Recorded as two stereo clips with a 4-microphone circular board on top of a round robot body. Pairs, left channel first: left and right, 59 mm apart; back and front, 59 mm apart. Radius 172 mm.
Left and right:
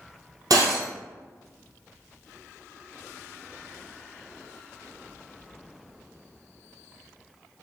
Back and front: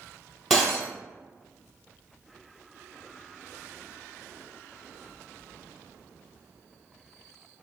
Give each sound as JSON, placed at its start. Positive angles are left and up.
{"t": 0.5, "sound": "breaking glass", "azimuth_deg": -90, "distance_m": 1.5}